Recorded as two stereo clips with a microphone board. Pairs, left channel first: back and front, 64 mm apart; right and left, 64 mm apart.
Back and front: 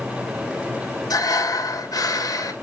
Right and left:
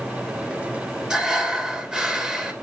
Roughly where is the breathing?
Behind.